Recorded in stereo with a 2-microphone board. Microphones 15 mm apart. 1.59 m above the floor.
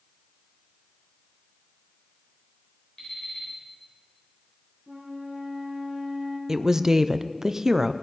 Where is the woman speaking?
35° right (ahead or behind), 0.6 m.